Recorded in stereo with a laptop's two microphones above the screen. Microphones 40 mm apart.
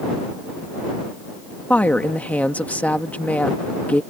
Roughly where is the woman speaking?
Left.